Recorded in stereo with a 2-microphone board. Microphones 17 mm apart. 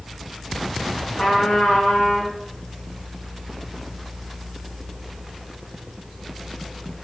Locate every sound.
1.2 s a trumpet: 80° left, 5.5 m